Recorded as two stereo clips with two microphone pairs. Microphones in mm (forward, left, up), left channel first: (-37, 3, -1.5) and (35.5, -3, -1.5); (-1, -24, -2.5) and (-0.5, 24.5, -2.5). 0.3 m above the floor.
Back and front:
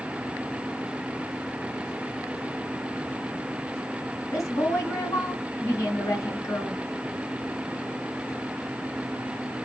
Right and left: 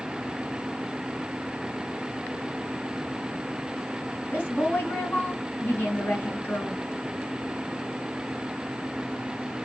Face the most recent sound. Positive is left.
turn(degrees=-140)